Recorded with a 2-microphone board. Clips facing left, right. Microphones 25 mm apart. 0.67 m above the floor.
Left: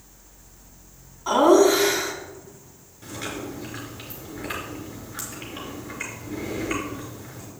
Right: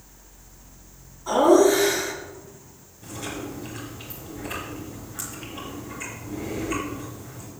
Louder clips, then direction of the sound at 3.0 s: Left 1 dB; 65° left (ahead or behind).